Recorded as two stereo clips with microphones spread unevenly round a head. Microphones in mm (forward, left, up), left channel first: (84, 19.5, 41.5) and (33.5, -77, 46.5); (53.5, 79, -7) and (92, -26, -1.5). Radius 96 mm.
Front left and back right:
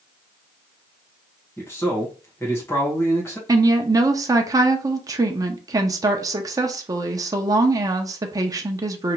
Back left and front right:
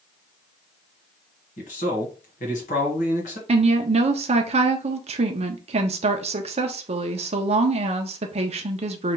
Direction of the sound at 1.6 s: 135° left.